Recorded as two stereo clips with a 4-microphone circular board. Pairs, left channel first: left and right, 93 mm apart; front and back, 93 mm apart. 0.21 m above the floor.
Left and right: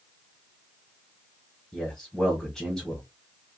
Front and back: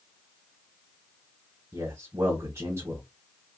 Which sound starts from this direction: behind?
A man speaking, at 1.7 s.